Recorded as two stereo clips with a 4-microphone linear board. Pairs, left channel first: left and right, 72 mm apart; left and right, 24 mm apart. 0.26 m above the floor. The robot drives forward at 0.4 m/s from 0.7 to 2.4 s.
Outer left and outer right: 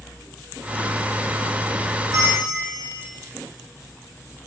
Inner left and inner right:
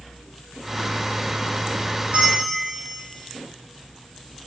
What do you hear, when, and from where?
2.1 s a bell: 55° right (ahead or behind), 1.6 m; by 3.0 s 60° right (ahead or behind), 1.6 m